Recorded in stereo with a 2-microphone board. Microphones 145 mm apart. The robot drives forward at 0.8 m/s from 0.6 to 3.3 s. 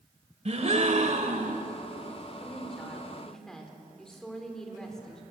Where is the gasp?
55° right (ahead or behind), 1.9 m; by 1.6 s 65° right (ahead or behind), 1.6 m.